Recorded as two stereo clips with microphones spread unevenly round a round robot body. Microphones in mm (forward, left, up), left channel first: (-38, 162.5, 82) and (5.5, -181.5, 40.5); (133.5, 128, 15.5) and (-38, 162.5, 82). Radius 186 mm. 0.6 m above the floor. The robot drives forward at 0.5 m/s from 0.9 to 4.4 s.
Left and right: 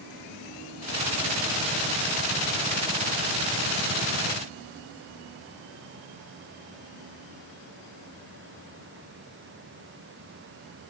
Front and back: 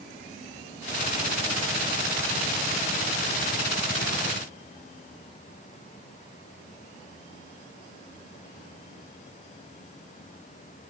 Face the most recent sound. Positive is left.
No sound to turn to.